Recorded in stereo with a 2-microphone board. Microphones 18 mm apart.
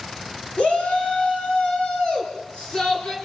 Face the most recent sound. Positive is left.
turn(degrees=45)  # may be behind; listen again after turning